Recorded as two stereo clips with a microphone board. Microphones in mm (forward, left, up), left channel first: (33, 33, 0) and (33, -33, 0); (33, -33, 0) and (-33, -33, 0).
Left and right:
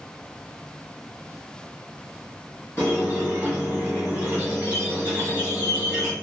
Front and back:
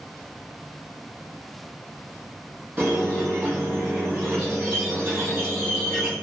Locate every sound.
2.8 s a squeak: 135° left, 1.4 m